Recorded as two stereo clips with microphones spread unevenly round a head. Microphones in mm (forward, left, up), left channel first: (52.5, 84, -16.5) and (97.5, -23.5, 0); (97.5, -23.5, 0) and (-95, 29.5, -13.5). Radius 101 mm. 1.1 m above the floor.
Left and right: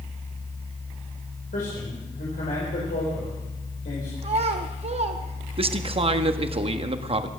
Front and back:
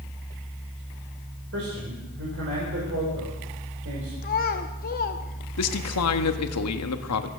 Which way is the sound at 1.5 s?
135° left.